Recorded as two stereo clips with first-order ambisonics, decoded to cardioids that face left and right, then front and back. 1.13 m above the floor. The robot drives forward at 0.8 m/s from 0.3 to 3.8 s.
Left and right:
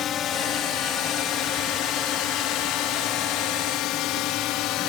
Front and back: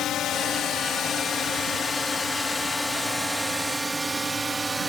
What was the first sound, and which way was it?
A drone, 45° left.